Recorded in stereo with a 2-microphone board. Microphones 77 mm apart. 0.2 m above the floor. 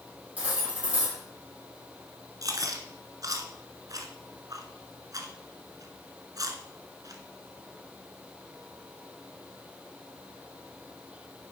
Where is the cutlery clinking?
20° right (ahead or behind), 5 m.